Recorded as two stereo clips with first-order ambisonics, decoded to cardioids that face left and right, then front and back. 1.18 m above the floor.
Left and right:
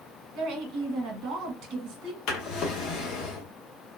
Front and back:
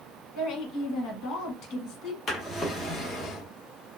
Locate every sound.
0.3 s a woman speaking: 45° right, 1.3 m
2.3 s a drawer: 65° left, 0.8 m